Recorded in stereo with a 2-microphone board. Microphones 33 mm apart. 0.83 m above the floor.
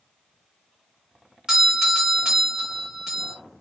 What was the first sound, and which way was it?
A doorbell, 20° right (ahead or behind).